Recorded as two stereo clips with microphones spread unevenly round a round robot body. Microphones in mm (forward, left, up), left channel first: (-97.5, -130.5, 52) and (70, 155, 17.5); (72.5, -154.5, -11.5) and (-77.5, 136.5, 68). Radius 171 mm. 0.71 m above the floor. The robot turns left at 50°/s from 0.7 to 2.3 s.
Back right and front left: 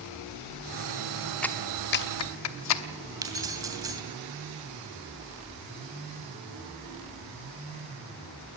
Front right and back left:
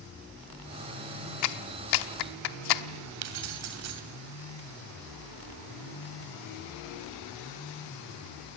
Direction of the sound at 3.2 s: 140° left.